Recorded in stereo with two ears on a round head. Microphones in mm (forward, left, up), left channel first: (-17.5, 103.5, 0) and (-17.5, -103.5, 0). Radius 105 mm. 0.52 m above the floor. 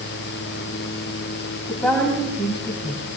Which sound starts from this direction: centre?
A woman speaking, at 1.7 s.